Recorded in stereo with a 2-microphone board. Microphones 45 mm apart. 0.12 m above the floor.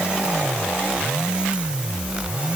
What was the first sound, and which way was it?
Only background noise.